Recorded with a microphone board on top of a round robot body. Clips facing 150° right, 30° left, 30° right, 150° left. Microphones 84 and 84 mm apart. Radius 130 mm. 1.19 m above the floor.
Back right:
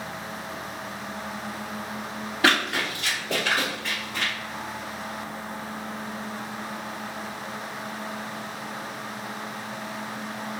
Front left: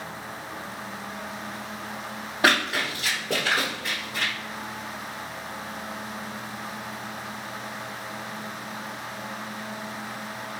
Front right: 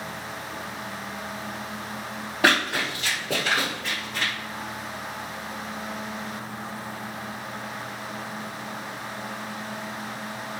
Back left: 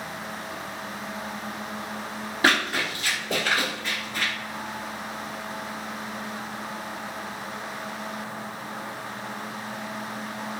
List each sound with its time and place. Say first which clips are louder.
2.4 s running footsteps: even, front right 1 dB; 35° right, 1.8 m; by 4.3 s 50° left, 1.2 m